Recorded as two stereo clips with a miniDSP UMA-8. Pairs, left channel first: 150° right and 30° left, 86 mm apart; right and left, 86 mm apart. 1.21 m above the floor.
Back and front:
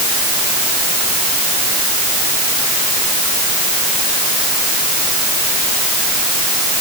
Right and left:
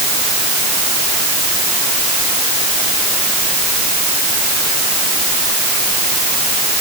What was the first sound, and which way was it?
Only background noise.